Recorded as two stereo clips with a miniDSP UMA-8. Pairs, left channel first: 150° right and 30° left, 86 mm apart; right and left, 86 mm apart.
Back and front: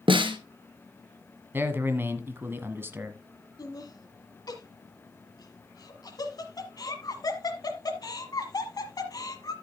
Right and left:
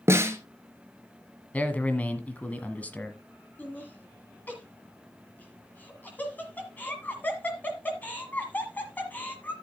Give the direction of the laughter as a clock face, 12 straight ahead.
5 o'clock.